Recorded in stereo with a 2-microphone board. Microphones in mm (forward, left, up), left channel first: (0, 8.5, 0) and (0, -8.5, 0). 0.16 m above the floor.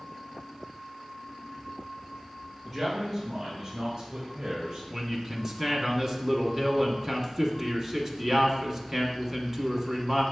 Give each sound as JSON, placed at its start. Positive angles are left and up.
{"t": 2.6, "sound": "a man speaking", "side_deg": 10, "distance_m": 2.5}
{"t": 4.9, "sound": "a man speaking", "side_deg": -10, "distance_m": 1.3}